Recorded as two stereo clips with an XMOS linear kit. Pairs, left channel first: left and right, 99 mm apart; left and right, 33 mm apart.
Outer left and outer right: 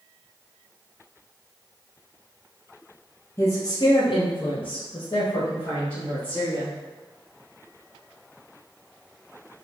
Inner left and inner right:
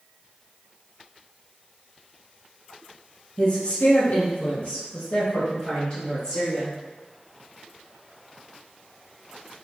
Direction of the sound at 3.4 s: 30° left (ahead or behind).